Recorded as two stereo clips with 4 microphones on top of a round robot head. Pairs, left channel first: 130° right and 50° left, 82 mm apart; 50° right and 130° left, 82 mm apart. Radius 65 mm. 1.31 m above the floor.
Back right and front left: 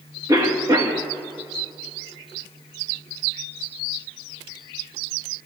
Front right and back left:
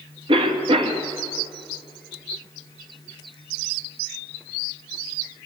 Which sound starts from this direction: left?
A cough, at 0.3 s.